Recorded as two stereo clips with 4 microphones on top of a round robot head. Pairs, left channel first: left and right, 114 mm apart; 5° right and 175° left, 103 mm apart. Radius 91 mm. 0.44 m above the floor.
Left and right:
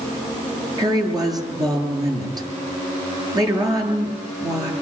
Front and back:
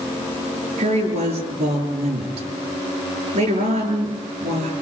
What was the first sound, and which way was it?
A woman speaking, 145° right.